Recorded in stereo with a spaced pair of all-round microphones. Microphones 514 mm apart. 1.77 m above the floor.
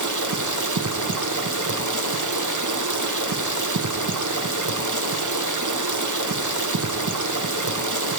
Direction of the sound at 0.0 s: 35° right (ahead or behind).